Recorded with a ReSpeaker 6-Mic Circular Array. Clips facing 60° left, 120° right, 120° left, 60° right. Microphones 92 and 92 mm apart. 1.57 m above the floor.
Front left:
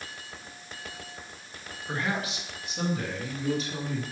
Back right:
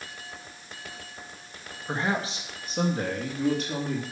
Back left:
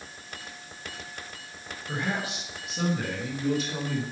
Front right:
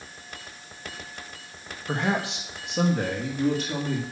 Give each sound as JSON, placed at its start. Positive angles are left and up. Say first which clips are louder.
{"t": 1.9, "sound": "a man speaking", "louder": "back right 3 dB, front right 5 dB", "azimuth_deg": -55, "distance_m": 2.0}